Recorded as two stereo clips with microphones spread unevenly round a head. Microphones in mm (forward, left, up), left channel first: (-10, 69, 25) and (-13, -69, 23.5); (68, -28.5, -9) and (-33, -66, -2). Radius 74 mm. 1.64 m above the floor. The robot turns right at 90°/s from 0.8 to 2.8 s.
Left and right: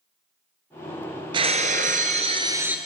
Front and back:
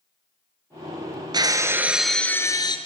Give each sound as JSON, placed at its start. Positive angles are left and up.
{"t": 1.3, "sound": "breaking glass", "azimuth_deg": -135, "distance_m": 2.0}